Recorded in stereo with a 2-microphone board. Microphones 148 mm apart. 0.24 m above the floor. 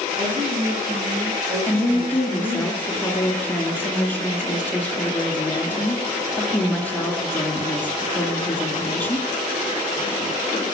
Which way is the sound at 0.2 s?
45° right (ahead or behind).